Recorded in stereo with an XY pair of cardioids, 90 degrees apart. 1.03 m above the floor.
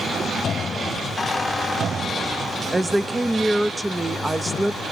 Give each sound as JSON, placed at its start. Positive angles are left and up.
{"t": 1.2, "sound": "a squeak", "azimuth_deg": 30, "distance_m": 2.0}
{"t": 2.7, "sound": "a woman speaking", "azimuth_deg": -15, "distance_m": 0.8}